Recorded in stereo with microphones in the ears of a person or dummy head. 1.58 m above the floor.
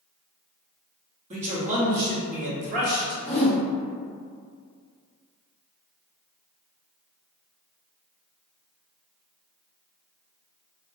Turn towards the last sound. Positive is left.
turn(degrees=5)  # may be behind; listen again after turning